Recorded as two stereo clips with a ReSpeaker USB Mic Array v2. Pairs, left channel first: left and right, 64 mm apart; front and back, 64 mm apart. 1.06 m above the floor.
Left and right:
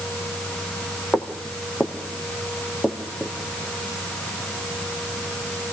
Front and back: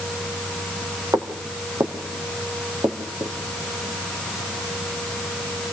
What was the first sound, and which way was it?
Footsteps, 150° left.